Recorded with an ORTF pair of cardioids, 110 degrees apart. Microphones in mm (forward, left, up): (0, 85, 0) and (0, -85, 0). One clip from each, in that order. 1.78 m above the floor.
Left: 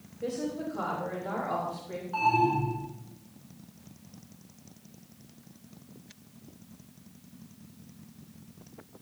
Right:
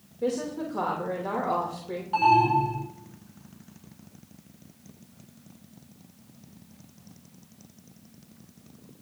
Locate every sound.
0.2 s a woman speaking: 65° right, 3 m
2.1 s an alarm: 55° right, 7 m